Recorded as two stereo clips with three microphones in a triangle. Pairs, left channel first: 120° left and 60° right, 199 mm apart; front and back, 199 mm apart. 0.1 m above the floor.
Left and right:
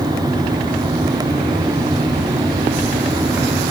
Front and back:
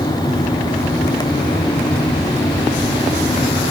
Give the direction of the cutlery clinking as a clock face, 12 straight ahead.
No cutlery clinking in this recording.